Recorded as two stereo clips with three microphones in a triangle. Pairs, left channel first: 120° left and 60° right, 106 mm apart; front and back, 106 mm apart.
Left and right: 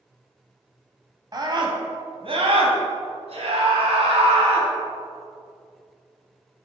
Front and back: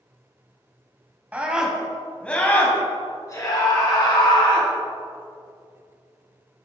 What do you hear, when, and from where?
1.3 s a scream: 105° right, 2.5 m; by 4.7 s 40° right, 4.5 m